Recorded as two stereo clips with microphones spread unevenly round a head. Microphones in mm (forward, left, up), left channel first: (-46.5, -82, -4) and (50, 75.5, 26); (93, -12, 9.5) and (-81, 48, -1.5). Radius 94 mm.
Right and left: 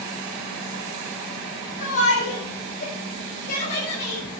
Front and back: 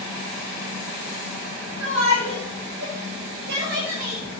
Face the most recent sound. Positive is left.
turn(degrees=-155)